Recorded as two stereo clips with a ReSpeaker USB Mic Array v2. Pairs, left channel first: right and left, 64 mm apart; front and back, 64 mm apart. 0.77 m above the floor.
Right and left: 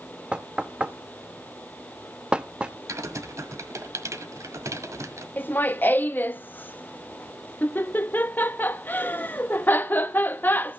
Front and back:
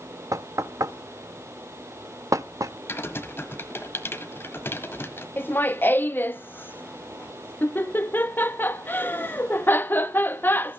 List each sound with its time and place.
0.3 s knocking: 160° left, 0.6 m
2.9 s typing on a keyboard: 50° left, 1.4 m
5.4 s laughter: 45° right, 0.8 m